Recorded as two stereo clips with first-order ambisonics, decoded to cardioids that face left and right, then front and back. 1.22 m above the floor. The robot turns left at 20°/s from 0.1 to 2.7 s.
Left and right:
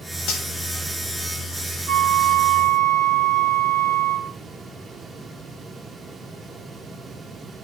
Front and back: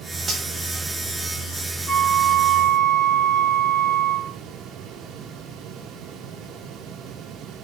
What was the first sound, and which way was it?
Cutlery clinking, 105° left.